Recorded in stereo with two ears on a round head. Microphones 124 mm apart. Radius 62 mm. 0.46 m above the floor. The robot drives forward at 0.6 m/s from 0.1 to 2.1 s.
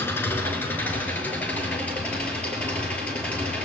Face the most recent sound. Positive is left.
turn(degrees=10)  # may be behind; listen again after turning